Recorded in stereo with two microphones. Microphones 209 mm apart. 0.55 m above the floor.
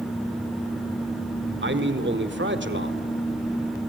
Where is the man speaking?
60° right (ahead or behind), 1.7 m.